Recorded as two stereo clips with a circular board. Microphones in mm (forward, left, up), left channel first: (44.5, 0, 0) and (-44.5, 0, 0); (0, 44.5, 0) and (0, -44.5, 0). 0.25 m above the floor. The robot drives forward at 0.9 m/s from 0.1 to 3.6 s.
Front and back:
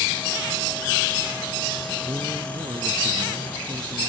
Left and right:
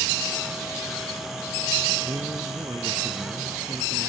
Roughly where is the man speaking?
Behind right.